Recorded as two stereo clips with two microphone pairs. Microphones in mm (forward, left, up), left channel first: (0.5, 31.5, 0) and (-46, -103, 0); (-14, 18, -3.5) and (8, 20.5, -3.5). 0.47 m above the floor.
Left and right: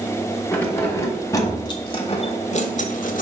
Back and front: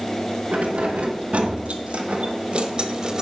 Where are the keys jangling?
5° right, 2.5 m; by 3.2 s 70° left, 1.2 m.